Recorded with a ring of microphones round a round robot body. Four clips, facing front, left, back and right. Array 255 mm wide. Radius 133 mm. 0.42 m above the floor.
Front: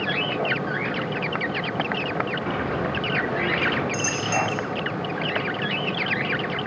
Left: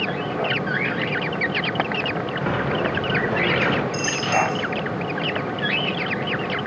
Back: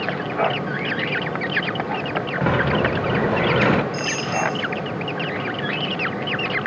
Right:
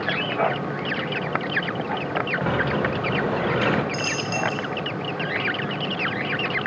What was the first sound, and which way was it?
A sliding door, 175° right.